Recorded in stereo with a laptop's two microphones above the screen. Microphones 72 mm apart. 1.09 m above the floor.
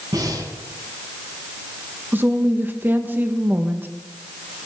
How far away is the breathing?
About 4.5 m.